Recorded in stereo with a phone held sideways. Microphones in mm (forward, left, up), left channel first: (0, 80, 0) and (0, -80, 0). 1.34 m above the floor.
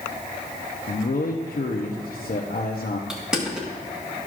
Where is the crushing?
5° right (ahead or behind), 1.4 m.